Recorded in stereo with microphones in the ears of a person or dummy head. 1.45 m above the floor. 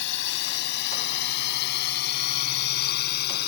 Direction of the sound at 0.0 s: 65° left (ahead or behind).